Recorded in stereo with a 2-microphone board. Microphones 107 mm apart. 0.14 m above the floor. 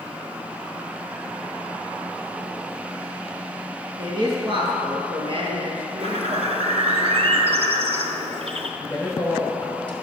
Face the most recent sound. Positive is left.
turn(degrees=15)  # may be behind; listen again after turning